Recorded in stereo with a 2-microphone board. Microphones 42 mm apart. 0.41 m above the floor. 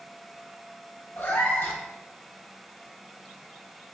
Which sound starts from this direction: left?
A cat meowing, at 1.2 s.